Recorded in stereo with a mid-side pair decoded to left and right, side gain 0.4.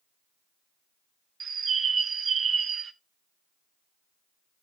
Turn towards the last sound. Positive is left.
turn(degrees=-55)